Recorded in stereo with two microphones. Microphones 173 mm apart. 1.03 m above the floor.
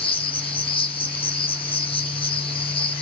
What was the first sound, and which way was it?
An insect, 30° left (ahead or behind).